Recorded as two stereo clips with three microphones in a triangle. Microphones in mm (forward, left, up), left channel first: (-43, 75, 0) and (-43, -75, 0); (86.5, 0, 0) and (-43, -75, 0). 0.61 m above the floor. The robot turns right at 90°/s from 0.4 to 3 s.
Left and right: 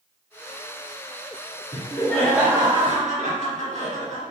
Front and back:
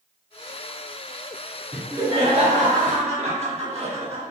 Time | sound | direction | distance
1.7 | laughter | 125° left | 1.2 m